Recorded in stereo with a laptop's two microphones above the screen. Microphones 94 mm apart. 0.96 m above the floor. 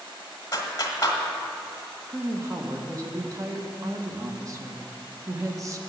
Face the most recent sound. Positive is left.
turn(degrees=-35)  # may be behind; listen again after turning